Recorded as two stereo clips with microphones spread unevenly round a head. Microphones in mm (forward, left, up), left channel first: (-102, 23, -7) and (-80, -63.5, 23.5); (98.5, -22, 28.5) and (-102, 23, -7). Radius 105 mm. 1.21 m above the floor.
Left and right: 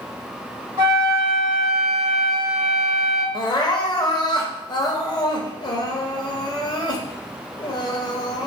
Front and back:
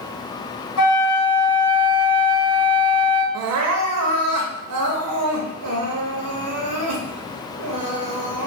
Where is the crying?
155° left, 0.7 m.